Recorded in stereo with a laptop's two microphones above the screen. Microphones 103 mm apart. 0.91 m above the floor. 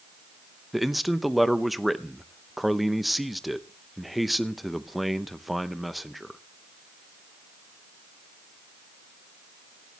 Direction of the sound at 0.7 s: Centre (ahead or behind).